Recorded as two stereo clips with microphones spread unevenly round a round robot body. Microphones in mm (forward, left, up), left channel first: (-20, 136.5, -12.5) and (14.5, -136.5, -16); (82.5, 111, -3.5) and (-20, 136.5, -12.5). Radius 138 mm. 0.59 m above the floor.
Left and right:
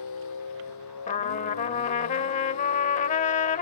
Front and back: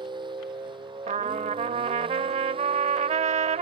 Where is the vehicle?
120° left; by 3.6 s 130° left.